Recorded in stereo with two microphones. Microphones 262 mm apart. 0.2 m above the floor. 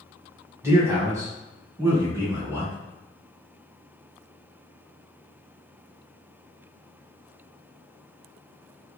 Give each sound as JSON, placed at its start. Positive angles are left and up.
{"t": 0.6, "sound": "a man speaking", "side_deg": -10, "distance_m": 1.1}